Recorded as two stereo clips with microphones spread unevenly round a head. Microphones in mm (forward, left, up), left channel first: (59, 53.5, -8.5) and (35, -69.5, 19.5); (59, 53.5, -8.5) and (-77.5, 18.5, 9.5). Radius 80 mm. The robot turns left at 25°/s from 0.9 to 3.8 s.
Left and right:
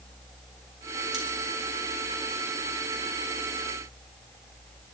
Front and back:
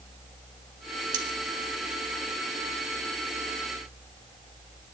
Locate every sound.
1.1 s cutlery clinking: 175° left, 2 m